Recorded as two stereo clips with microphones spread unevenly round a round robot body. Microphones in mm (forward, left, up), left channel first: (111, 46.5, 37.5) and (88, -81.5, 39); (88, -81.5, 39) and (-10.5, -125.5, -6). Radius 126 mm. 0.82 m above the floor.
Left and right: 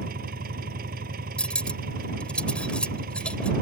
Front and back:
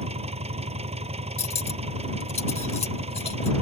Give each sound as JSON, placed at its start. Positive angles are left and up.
{"t": 0.0, "sound": "an engine running", "azimuth_deg": -135}
{"t": 1.4, "sound": "cutlery clinking", "azimuth_deg": 0}